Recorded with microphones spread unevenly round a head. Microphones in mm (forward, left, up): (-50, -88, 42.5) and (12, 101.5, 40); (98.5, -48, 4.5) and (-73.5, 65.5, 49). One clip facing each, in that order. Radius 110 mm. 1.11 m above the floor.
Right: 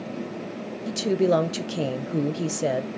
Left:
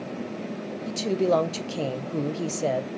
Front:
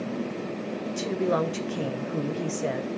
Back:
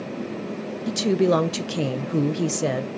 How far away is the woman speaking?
About 1.0 m.